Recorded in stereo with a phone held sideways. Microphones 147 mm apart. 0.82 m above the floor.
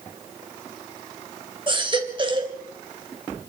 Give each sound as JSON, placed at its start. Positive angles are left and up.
{"t": 1.7, "sound": "a baby crying", "side_deg": -35, "distance_m": 2.5}